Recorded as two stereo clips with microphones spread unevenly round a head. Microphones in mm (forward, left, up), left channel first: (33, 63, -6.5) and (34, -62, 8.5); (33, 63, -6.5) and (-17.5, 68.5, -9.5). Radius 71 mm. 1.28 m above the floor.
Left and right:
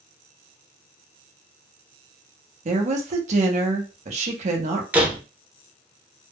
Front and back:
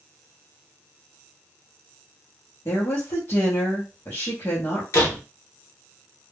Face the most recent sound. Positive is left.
turn(degrees=-10)